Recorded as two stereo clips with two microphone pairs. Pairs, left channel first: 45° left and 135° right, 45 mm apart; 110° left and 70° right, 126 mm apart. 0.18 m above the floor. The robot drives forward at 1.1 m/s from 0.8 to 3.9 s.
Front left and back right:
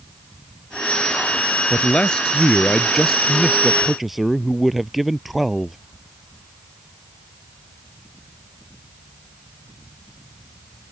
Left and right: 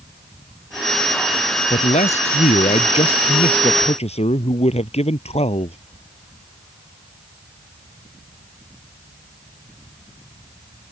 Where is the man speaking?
105° left; by 5.8 s 135° left.